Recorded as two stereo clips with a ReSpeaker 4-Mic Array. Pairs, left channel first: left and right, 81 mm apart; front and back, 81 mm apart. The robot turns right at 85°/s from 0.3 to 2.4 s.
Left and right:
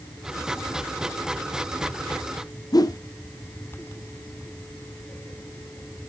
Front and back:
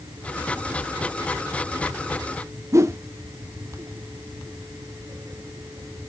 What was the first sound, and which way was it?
A whoosh, 130° left.